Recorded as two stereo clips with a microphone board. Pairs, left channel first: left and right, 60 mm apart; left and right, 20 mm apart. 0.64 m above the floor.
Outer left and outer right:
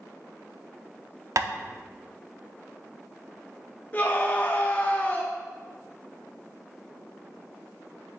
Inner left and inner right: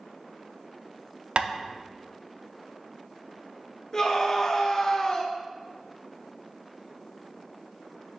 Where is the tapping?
60° right (ahead or behind), 0.6 m.